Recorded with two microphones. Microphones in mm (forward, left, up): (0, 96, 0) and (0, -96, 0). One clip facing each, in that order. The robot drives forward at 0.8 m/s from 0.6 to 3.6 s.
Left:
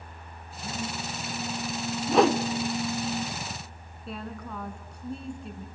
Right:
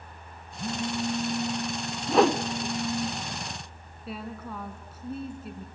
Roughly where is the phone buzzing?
Right.